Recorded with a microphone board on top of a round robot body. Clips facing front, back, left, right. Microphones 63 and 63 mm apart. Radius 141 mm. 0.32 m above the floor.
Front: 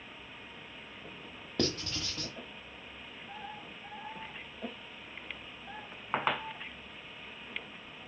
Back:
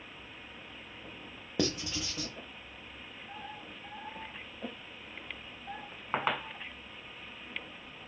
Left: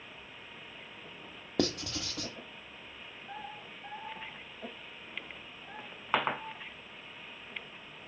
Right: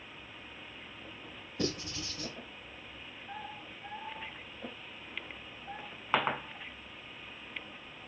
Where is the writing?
100° left, 1.0 m.